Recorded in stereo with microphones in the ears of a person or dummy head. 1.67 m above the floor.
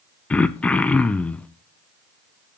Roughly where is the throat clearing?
Centre.